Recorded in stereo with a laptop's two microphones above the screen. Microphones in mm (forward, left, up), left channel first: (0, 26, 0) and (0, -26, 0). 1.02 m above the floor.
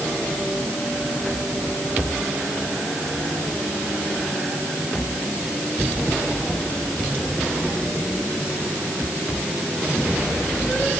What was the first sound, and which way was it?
Only background noise.